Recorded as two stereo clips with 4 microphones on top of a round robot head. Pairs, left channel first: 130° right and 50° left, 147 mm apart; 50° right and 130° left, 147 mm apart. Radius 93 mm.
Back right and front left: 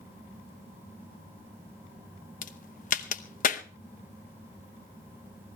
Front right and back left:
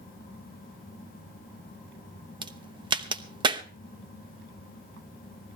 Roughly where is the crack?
Behind.